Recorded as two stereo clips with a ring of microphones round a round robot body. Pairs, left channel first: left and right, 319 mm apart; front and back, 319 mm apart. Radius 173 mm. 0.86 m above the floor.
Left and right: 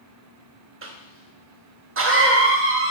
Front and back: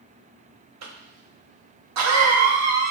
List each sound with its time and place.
0.8 s a cough: 140° right, 1.1 m